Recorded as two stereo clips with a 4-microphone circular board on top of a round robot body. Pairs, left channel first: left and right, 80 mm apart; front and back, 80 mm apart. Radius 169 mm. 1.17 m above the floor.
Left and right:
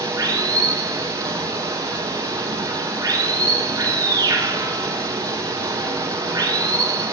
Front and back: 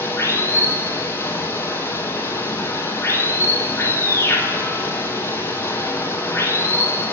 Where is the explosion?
No explosion in this recording.